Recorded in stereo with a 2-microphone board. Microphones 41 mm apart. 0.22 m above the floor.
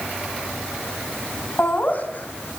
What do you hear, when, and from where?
1.6 s laughter: 45° left (ahead or behind), 2.5 m